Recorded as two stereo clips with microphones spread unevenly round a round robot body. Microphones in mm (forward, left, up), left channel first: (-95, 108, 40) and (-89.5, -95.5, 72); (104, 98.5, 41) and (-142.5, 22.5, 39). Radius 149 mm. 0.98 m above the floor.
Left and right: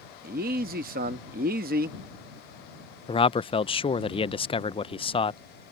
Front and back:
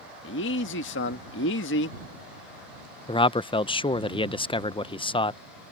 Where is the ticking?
I don't hear ticking.